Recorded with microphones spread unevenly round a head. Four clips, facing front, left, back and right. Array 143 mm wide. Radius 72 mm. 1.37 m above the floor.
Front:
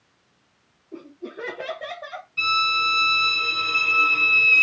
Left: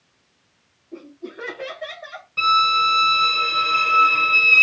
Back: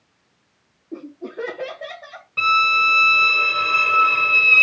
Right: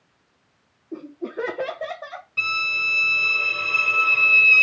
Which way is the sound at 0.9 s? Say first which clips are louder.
Right 5 dB, back 5 dB; 140° right.